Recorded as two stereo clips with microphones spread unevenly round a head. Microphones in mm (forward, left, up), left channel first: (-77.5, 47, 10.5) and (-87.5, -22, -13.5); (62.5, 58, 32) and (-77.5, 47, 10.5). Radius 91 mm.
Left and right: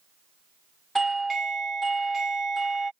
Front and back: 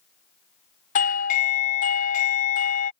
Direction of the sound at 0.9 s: 20° right.